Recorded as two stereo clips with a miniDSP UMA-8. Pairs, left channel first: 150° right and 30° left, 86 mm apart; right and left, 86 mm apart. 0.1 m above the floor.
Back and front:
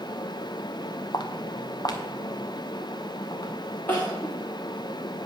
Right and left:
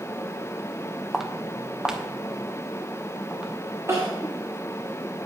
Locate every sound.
1.1 s footsteps: straight behind, 1.1 m; by 3.5 s 165° left, 2.5 m
3.9 s crying: 145° left, 3 m